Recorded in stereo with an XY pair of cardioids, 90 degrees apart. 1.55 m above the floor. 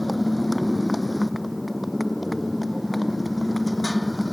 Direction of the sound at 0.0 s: 10° left.